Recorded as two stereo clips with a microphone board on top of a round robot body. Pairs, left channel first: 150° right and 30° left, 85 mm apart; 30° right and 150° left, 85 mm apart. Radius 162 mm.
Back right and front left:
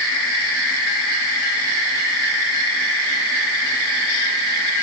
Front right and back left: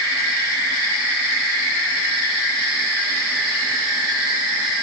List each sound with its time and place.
Only background noise.